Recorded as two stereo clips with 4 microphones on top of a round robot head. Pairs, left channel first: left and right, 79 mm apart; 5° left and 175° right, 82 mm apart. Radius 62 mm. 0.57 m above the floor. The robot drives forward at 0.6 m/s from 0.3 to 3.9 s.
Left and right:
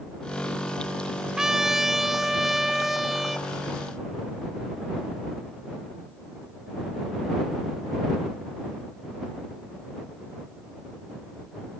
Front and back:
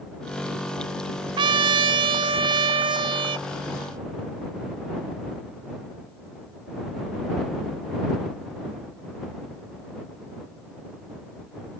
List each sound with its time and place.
1.4 s a trumpet: 175° right; by 3.5 s straight behind